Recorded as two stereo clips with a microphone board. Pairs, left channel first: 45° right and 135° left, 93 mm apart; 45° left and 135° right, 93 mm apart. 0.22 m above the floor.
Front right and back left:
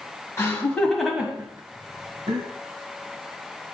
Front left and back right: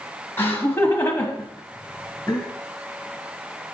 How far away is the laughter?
About 1.5 m.